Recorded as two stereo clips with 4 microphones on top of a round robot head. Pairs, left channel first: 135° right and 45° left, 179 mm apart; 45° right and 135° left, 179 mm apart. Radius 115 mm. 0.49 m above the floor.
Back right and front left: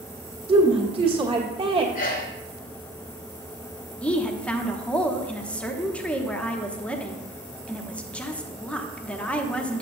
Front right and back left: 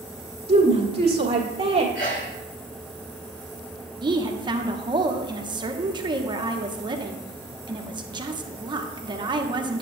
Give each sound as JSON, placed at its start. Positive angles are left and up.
{"t": 0.5, "sound": "a woman speaking", "azimuth_deg": 90, "distance_m": 1.6}
{"t": 1.9, "sound": "a sneeze", "azimuth_deg": -95, "distance_m": 4.0}
{"t": 4.0, "sound": "a woman speaking", "azimuth_deg": 150, "distance_m": 0.8}